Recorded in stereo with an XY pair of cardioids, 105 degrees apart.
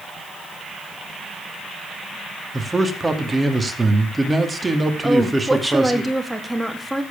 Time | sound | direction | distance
2.5 | a man speaking | 15° right | 2.5 m
5.0 | a woman speaking | 5° right | 2.5 m